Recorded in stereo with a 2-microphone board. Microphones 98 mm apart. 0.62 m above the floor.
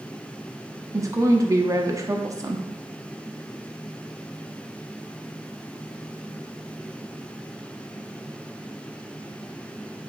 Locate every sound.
0.9 s a woman speaking: 35° right (ahead or behind), 0.8 m